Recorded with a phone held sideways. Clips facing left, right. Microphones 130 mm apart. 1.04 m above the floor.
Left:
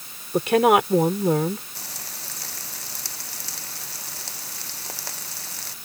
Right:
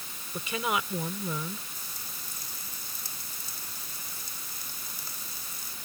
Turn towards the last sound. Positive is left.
turn(degrees=85)